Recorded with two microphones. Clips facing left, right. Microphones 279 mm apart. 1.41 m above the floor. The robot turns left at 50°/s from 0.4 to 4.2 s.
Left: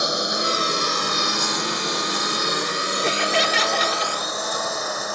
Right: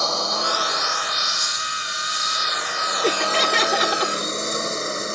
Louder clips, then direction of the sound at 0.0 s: Left 2 dB; 20° left (ahead or behind).